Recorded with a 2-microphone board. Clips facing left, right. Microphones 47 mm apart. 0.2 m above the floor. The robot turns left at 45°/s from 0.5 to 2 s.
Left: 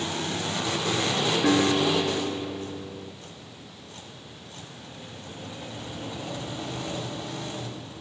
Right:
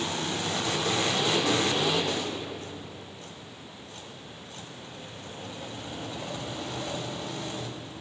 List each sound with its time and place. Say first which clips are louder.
1.4 s a guitar: left 4 dB; 45° left (ahead or behind), 1.1 m; by 3.1 s 65° left (ahead or behind), 1.1 m